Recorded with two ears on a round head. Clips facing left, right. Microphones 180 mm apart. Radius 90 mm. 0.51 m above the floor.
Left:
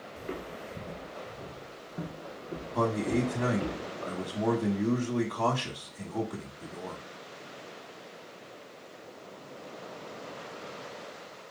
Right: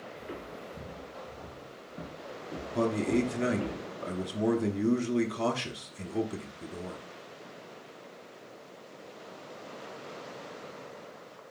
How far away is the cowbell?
No cowbell in this recording.